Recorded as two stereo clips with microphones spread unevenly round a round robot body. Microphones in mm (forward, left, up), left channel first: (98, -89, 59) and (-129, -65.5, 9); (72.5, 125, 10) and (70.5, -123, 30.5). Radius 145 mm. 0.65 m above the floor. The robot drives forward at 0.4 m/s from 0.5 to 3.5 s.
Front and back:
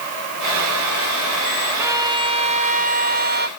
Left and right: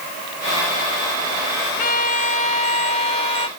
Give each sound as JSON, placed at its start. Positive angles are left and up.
{"t": 1.8, "sound": "a violin", "azimuth_deg": 115}